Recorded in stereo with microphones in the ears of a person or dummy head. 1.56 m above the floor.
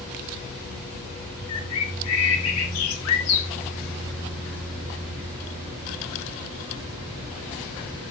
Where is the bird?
90° left, 0.9 m.